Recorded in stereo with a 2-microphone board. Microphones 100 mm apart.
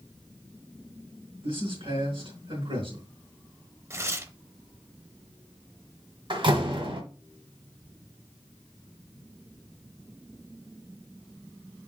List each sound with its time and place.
1.4 s a man speaking: 55° right (ahead or behind), 3.5 m
3.9 s tearing paper: 25° right (ahead or behind), 0.7 m
6.3 s a door slam: 55° right (ahead or behind), 1.4 m